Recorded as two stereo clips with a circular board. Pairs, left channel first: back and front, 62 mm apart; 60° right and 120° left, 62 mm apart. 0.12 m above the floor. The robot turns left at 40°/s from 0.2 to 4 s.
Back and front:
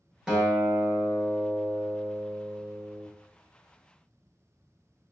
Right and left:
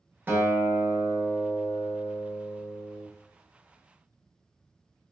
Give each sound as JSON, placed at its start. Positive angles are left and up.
{"t": 0.3, "sound": "a guitar", "azimuth_deg": 75, "distance_m": 1.0}